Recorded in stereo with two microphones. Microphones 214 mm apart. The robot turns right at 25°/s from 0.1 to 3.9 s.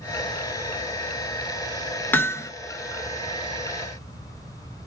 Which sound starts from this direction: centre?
Hammering, at 2.1 s.